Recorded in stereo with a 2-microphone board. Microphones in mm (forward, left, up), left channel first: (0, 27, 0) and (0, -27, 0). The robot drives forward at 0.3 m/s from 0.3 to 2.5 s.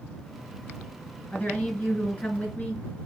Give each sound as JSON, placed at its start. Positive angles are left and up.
{"t": 1.3, "sound": "a woman speaking", "side_deg": 20, "distance_m": 2.0}